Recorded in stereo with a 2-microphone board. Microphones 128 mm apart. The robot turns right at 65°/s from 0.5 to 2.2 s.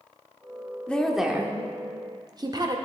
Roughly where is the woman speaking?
Centre.